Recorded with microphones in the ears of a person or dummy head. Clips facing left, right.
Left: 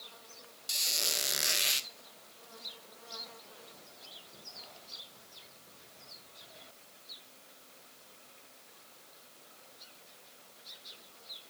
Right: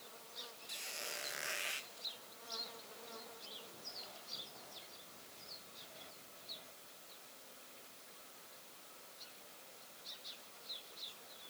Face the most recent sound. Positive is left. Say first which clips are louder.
# left 8 dB
turn(degrees=65)  # may be behind; listen again after turning